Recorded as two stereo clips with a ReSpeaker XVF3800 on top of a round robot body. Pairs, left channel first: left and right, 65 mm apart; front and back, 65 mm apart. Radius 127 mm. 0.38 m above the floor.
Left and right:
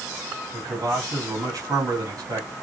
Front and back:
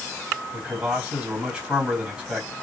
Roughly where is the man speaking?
Behind right.